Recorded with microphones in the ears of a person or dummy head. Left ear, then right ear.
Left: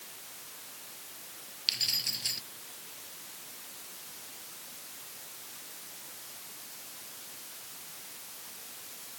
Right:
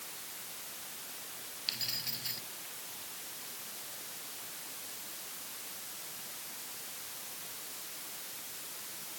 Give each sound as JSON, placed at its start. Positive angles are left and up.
{"t": 1.7, "sound": "keys jangling", "side_deg": 30}